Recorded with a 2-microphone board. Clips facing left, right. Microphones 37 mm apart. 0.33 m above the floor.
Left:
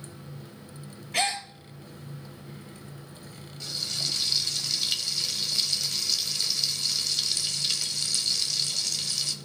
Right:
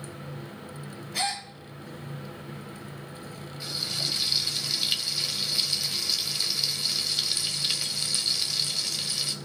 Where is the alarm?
I don't hear an alarm.